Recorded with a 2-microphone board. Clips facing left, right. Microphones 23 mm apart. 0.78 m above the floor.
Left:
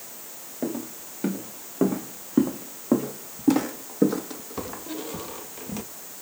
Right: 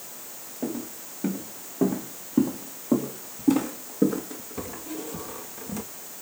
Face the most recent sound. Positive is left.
turn(degrees=20)  # may be behind; listen again after turning